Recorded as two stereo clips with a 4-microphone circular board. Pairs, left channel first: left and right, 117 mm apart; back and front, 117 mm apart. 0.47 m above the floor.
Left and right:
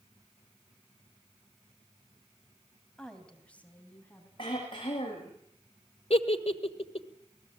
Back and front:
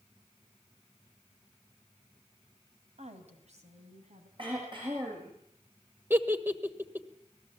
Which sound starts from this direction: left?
A giggle, at 6.1 s.